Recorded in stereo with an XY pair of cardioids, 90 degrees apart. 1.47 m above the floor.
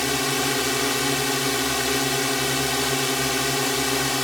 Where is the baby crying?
I don't hear a baby crying.